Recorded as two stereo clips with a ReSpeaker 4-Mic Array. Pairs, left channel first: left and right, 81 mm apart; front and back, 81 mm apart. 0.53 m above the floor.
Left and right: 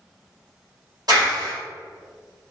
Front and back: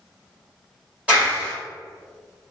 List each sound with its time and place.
1.1 s a clap: 110° right, 2.0 m